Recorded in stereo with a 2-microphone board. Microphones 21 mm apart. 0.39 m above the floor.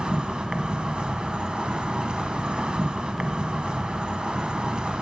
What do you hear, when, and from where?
0.0 s an insect: 55° right (ahead or behind), 0.7 m